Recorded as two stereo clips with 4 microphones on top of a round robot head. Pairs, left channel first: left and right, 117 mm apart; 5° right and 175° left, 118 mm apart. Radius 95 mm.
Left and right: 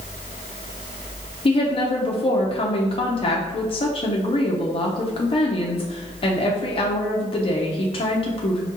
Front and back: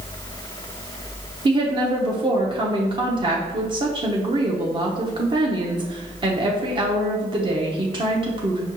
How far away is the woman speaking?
About 0.7 m.